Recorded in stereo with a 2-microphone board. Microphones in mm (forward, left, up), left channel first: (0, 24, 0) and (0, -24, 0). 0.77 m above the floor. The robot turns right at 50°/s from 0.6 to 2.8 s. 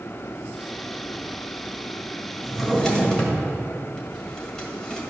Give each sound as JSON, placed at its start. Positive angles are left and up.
{"t": 2.4, "sound": "a drawer", "side_deg": -5, "distance_m": 1.9}